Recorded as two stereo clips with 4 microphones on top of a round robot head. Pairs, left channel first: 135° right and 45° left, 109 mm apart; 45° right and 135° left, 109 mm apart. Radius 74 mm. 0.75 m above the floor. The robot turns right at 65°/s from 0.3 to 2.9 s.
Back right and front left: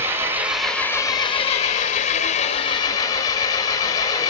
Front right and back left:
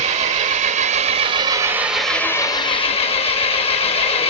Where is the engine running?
115° left, 1.5 m; by 4.3 s 75° right, 1.5 m.